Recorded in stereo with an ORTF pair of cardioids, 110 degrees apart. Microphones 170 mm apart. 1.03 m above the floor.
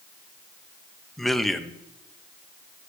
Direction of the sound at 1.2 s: Straight ahead.